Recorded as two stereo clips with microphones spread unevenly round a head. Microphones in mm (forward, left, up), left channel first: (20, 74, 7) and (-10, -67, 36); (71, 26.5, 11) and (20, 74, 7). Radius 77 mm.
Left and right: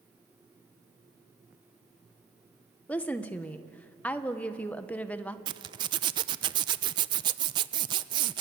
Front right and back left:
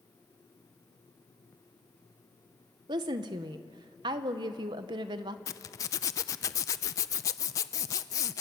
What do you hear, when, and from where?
2.9 s a woman speaking: 155° left, 1.3 m
5.5 s a zipper: 65° right, 0.5 m